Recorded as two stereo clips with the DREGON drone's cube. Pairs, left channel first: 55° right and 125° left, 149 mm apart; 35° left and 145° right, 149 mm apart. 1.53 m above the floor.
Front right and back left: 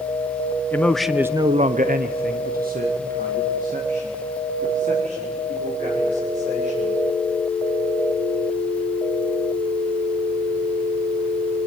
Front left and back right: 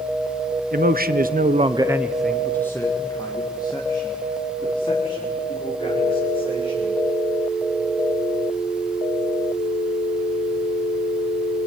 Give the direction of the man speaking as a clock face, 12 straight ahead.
4 o'clock.